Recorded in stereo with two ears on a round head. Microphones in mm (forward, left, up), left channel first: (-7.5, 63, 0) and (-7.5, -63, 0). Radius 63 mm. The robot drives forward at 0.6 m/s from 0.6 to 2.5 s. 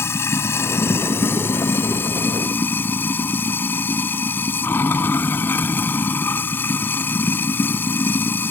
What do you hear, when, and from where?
0.0 s running water: 20° left (ahead or behind); by 8.5 s 15° left (ahead or behind)